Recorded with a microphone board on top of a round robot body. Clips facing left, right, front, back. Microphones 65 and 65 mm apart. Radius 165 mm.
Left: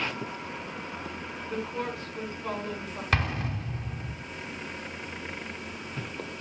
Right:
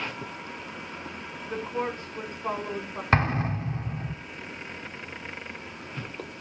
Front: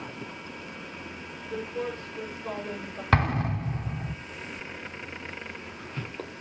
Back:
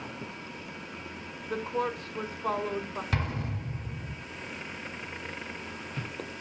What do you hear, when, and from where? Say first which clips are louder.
1.4 s a woman speaking: right 3 dB, back 2 dB; 160° right, 4.5 m
3.1 s an explosion: right 5 dB, front 11 dB; 35° right, 2.5 m